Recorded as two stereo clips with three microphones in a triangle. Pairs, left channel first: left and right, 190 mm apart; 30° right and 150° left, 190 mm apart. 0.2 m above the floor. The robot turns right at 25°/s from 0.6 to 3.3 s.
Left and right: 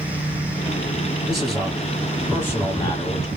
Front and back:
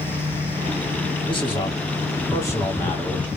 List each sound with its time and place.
1.3 s a man speaking: 5° right, 1.5 m; by 3.3 s 45° left, 1.5 m